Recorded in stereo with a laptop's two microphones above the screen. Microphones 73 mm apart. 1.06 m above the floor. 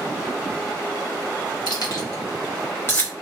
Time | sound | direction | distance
1.7 | keys jangling | 65° left (ahead or behind) | 1.1 m